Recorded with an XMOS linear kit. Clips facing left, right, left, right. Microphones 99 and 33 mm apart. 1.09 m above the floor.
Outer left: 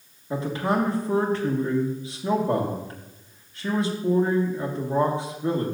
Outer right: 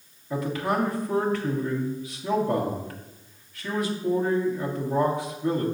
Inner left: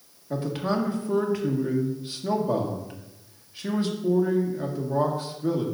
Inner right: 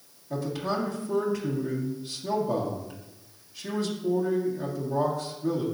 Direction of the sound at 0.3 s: 30° left (ahead or behind).